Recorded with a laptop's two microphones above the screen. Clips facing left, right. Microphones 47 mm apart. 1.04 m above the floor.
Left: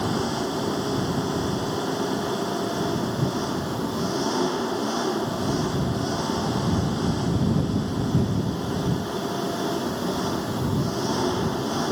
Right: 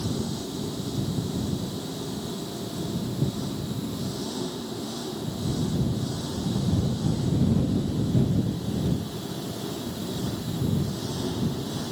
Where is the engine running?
55° left (ahead or behind).